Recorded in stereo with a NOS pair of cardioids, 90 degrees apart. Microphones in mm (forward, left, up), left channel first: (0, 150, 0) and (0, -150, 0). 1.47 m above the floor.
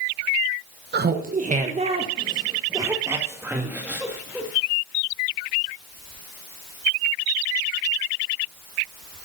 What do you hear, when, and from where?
0.9 s laughter: 35° right, 1.1 m; by 4.5 s 5° right, 2.5 m